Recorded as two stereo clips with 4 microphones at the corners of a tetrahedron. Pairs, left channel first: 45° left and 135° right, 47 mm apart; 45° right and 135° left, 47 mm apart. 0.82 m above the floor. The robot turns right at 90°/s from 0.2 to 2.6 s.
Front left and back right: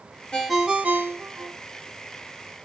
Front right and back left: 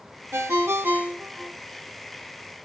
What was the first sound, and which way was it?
A ringtone, 120° left.